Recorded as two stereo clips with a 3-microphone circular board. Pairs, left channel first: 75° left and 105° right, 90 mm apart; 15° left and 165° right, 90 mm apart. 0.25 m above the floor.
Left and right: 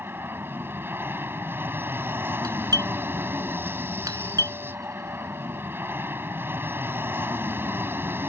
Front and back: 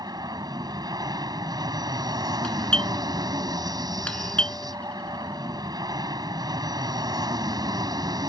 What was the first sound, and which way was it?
An aircraft, 160° right.